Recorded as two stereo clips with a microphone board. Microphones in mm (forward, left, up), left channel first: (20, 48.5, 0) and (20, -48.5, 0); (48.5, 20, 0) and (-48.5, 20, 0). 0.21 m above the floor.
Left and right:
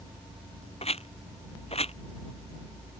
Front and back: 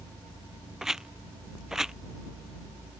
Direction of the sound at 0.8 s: 95° left.